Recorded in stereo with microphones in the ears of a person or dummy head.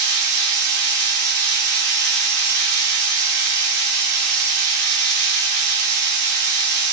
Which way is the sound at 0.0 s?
60° right (ahead or behind).